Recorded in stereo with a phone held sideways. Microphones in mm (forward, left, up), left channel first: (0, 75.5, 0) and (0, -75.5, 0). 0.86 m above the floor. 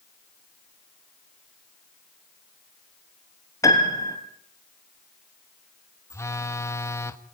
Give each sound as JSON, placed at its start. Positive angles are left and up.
{"t": 3.6, "sound": "a piano", "side_deg": 20, "distance_m": 3.0}
{"t": 6.1, "sound": "a phone buzzing", "side_deg": 20, "distance_m": 1.2}